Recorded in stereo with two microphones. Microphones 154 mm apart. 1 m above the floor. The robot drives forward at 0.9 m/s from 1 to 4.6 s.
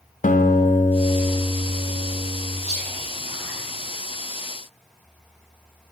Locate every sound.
0.2 s a guitar: 60° left (ahead or behind), 0.6 m; by 2.5 s 15° left (ahead or behind), 1.6 m
2.6 s whispering: 50° right (ahead or behind), 3 m; by 4.1 s 75° right (ahead or behind), 2 m